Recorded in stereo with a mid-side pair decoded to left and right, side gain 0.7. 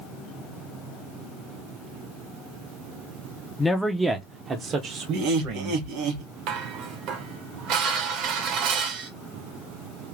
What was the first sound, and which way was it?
A man speaking, 10° left.